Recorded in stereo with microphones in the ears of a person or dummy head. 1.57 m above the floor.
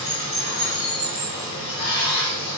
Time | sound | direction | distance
0.0 | running water | 70° left (ahead or behind) | 1.0 m